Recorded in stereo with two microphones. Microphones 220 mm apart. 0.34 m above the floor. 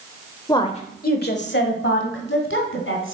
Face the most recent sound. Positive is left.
turn(degrees=70)  # may be behind; listen again after turning